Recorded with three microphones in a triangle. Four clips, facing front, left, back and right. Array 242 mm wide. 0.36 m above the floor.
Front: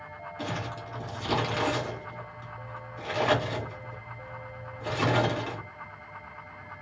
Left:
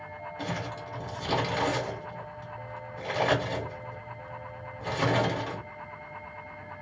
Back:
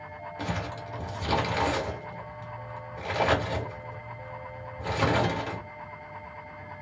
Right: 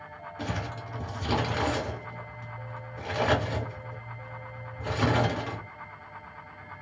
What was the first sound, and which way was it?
Crumpling, 150° right.